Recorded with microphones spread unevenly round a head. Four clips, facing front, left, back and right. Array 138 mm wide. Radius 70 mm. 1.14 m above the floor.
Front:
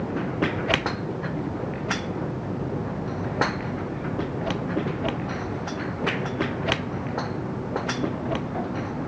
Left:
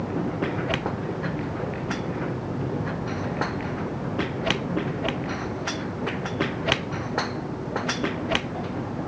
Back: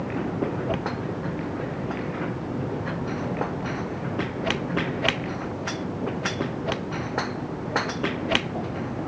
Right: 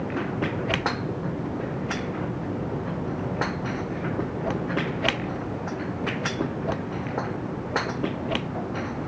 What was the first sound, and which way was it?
Only background noise.